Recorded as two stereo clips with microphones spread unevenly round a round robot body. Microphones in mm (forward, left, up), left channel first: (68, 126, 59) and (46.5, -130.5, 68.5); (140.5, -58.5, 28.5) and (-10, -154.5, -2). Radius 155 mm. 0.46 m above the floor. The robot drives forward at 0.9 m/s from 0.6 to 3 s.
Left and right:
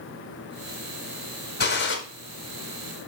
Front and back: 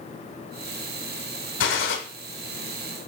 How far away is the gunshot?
About 1.7 m.